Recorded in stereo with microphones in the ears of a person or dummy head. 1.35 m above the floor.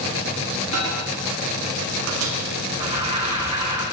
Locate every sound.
0.7 s a microwave: 85° right, 2.5 m
2.8 s an alarm: 35° right (ahead or behind), 7.5 m